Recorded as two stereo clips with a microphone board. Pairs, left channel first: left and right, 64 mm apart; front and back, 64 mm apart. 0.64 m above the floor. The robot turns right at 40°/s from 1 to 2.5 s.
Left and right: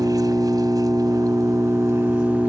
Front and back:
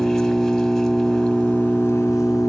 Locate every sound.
0.0 s an engine running: 90° right, 3 m; by 2.5 s 30° right, 3 m